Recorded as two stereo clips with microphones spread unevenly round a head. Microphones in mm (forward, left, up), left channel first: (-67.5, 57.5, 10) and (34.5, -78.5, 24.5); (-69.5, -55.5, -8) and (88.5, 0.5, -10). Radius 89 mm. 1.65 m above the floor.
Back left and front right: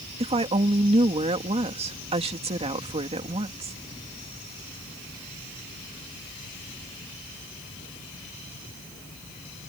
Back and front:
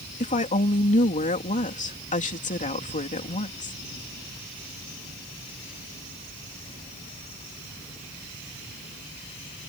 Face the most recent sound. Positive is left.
turn(degrees=-110)